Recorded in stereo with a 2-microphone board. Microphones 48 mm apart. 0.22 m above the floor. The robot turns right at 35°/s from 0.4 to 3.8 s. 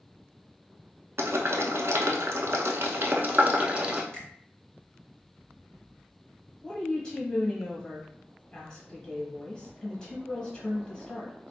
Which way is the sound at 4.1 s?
20° left (ahead or behind).